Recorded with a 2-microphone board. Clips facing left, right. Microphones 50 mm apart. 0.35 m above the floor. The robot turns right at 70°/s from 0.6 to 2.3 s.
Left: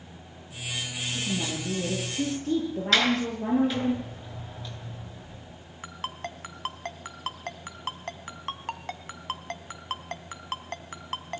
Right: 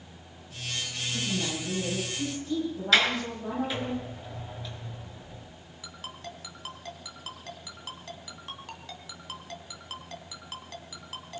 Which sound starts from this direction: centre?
A sliding door, at 2.9 s.